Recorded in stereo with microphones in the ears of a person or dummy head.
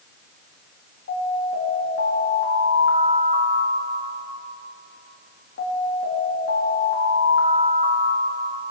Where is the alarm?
70° left (ahead or behind), 6 m.